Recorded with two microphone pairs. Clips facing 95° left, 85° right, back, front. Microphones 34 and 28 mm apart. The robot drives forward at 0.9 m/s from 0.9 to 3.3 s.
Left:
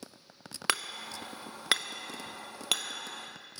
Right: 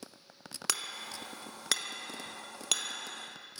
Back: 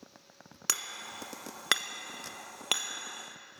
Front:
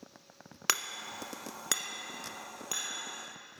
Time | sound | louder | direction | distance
0.7 | hammering | left 5 dB, front 3 dB | 60° left | 0.6 m